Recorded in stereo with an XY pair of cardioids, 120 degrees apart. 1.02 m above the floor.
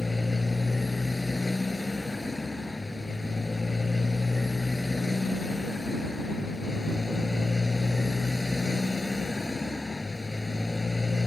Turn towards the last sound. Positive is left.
turn(degrees=10)